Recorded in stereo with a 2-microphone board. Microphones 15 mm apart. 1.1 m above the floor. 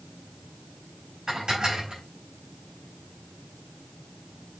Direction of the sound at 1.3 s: 55° right (ahead or behind).